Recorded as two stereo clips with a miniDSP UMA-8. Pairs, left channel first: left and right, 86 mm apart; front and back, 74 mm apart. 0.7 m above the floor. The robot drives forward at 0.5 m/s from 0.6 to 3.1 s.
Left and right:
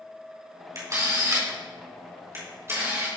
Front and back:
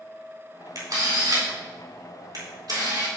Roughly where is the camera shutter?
Behind right.